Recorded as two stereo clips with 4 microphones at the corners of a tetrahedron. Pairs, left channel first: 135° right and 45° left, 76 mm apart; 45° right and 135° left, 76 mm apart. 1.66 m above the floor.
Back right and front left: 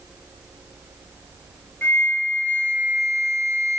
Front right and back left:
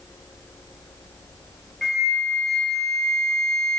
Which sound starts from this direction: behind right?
A flute, at 1.8 s.